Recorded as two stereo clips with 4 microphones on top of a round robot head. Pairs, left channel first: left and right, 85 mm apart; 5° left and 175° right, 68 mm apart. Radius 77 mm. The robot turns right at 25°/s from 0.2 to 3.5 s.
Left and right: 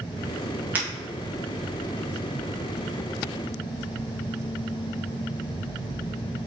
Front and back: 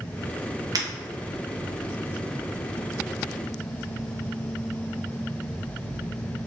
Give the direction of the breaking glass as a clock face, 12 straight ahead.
5 o'clock.